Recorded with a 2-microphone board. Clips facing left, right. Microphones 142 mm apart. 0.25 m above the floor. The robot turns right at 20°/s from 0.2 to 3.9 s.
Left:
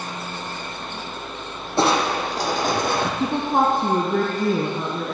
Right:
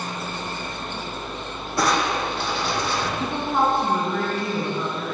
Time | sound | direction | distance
1.8 | crushing | 25° left (ahead or behind) | 3.5 m
3.2 | a woman speaking | 35° left (ahead or behind) | 3.5 m